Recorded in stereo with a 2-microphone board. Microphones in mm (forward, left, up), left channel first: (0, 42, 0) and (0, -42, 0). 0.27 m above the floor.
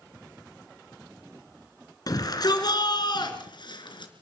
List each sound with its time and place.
2.1 s a shout: 50° left (ahead or behind), 3 m; by 4.1 s 70° left (ahead or behind), 3.5 m